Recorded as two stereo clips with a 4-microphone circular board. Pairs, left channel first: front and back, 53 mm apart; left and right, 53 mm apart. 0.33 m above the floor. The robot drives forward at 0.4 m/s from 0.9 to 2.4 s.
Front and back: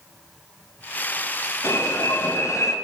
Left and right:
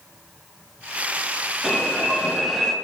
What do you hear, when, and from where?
1.6 s an alarm: 10° right, 5 m